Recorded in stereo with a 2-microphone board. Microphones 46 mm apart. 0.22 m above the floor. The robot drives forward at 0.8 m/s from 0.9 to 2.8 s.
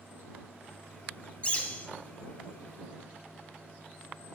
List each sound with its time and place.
1.4 s a bird: 35° left (ahead or behind), 0.7 m